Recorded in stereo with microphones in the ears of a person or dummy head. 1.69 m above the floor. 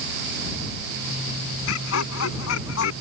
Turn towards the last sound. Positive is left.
turn(degrees=70)  # may be behind; listen again after turning